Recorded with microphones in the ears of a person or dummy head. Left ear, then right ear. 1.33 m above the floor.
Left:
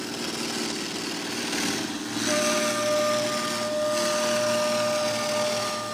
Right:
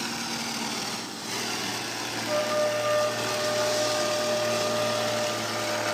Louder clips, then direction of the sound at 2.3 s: Left 1 dB; 75° left (ahead or behind).